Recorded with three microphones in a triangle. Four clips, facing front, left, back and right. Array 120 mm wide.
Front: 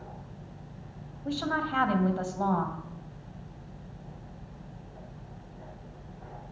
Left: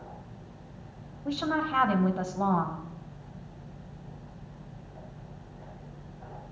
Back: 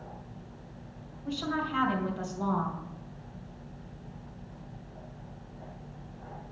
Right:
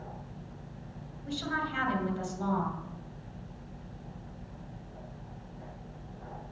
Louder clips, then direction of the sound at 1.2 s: Left 5 dB, front 2 dB; 55° left.